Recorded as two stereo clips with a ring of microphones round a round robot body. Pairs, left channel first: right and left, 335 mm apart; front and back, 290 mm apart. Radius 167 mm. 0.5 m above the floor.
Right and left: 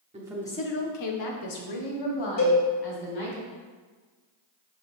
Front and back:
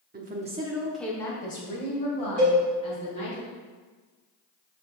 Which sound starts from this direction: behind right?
A cowbell, at 2.4 s.